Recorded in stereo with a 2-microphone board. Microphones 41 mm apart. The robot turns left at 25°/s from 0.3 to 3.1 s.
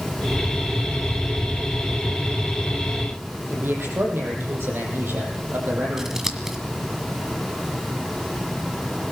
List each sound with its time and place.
3.5 s a man speaking: 70° right (ahead or behind), 6.5 m
6.0 s scissors: 15° right (ahead or behind), 1.7 m